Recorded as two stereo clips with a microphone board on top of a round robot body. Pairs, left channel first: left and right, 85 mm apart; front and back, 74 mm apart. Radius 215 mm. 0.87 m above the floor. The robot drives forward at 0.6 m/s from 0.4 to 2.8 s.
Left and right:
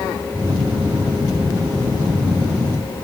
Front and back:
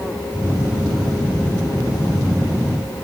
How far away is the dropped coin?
No dropped coin in this recording.